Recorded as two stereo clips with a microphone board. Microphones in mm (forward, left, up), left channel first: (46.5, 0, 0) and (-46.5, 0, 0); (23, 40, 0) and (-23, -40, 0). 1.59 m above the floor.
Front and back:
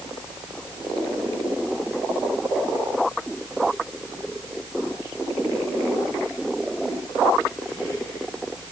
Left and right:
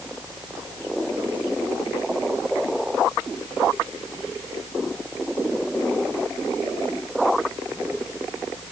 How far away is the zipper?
I don't hear a zipper.